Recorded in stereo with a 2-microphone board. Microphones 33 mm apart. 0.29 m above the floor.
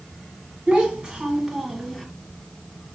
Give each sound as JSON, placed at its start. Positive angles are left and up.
{"t": 0.7, "sound": "a child speaking", "side_deg": -25, "distance_m": 2.0}